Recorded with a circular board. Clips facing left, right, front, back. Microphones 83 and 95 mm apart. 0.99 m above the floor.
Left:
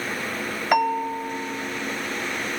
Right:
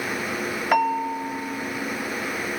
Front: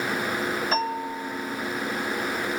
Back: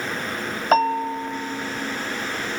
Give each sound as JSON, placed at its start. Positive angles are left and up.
{"t": 0.7, "sound": "a bell", "azimuth_deg": 175, "distance_m": 1.3}